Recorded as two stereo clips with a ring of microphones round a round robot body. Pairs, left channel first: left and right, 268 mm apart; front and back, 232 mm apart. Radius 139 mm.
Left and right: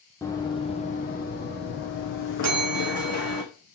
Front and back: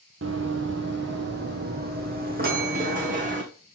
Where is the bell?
125° right, 1.4 m.